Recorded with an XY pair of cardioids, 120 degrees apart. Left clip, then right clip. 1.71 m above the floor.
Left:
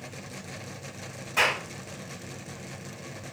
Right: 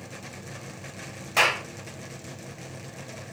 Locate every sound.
1.4 s a clap: 65° right, 1.3 m